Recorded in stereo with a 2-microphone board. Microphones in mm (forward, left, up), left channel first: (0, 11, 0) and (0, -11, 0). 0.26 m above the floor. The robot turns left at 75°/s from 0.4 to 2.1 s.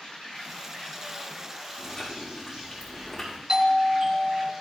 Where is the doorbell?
30° right (ahead or behind), 3.5 m.